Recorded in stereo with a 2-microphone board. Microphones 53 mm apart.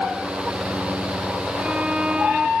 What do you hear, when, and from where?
1.6 s a violin: 15° right (ahead or behind)